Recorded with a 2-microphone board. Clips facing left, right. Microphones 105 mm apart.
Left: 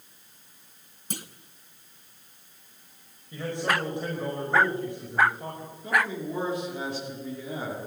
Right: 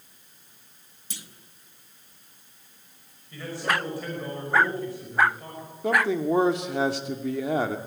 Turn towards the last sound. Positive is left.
turn(degrees=-80)